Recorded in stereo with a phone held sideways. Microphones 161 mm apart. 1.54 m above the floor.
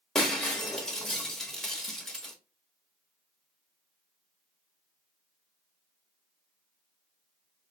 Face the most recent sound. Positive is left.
turn(degrees=5)  # may be behind; listen again after turning